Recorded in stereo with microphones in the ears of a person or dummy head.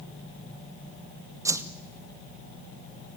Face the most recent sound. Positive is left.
turn(degrees=-15)  # may be behind; listen again after turning